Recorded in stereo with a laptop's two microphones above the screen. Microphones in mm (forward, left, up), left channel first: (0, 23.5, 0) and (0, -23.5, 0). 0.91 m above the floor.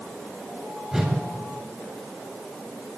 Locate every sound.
0.9 s a whoosh: 15° right (ahead or behind), 3 m